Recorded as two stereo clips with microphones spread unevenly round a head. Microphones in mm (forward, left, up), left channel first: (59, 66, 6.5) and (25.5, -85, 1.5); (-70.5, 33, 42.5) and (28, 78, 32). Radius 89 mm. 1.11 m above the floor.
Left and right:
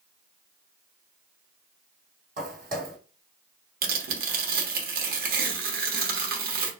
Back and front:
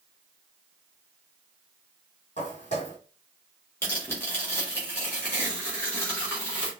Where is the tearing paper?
80° right, 1.2 m.